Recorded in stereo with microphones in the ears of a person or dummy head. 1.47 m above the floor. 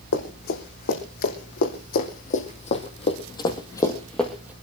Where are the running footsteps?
60° left (ahead or behind), 4 m; by 4.5 s 10° right (ahead or behind), 1.8 m.